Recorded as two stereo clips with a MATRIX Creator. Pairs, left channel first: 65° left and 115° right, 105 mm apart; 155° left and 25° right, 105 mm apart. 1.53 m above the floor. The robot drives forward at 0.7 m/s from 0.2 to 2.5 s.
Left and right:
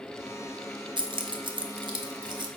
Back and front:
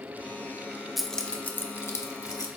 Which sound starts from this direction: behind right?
Keys jangling, at 1.0 s.